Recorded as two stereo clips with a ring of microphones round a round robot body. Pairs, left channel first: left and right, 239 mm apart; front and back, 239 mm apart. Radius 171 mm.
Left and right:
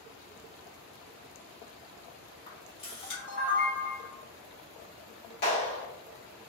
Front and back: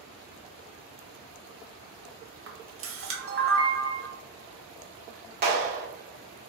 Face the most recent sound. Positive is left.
turn(degrees=140)